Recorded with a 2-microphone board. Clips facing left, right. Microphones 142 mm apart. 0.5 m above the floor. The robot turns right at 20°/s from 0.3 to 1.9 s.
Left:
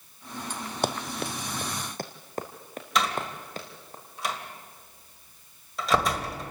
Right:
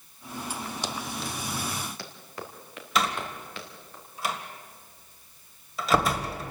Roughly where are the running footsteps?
Left.